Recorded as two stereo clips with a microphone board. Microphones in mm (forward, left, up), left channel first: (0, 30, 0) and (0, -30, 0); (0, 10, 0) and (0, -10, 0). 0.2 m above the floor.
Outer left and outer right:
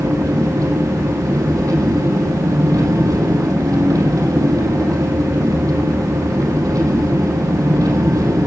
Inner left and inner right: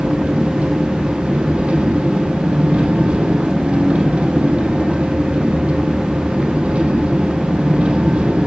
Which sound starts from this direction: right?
An engine running, at 0.0 s.